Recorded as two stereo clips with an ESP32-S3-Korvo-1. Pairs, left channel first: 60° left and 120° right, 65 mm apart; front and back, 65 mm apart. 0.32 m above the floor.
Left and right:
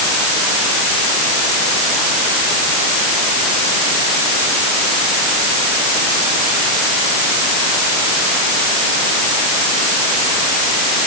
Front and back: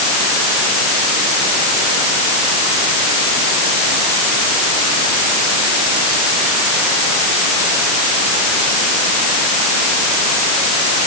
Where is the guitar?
No guitar in this recording.